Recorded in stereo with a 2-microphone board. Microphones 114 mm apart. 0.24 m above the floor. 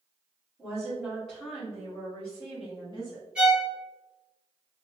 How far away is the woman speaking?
About 1.7 m.